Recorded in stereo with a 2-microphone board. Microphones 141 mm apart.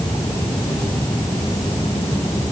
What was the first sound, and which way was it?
Only background noise.